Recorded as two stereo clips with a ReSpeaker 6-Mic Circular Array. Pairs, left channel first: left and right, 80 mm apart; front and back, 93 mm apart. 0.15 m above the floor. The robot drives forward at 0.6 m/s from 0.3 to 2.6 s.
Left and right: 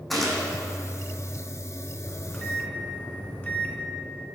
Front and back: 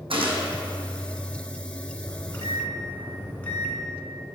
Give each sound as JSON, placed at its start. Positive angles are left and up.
{"t": 0.1, "sound": "a gunshot", "azimuth_deg": 180, "distance_m": 1.4}
{"t": 2.1, "sound": "a microwave", "azimuth_deg": 35, "distance_m": 1.4}